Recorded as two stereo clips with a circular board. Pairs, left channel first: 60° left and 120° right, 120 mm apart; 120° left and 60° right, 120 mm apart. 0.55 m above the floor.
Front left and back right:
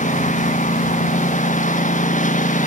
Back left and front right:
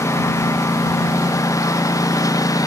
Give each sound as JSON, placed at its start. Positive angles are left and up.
{"t": 0.0, "sound": "a lawn mower", "azimuth_deg": 50}